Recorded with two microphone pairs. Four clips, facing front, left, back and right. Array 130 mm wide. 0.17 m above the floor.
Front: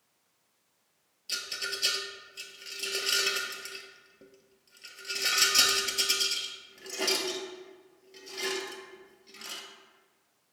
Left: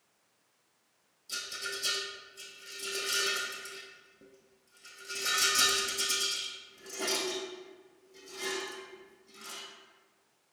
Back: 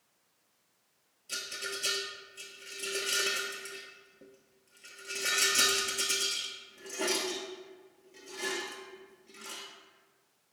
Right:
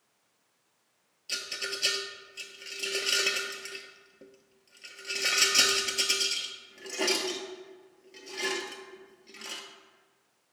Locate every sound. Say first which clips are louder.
1.3 s a rattle: right 2 dB, front 1 dB; 60° right, 0.5 m